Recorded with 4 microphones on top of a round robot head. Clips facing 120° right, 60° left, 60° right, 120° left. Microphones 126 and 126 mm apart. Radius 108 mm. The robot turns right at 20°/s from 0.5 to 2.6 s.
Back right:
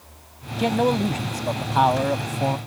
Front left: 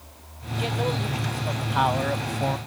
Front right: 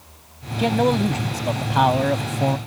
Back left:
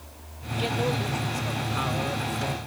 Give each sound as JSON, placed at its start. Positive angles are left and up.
{"t": 0.6, "sound": "a man speaking", "azimuth_deg": -90}